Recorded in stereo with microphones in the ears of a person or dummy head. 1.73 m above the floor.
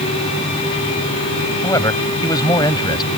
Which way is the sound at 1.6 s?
15° left (ahead or behind).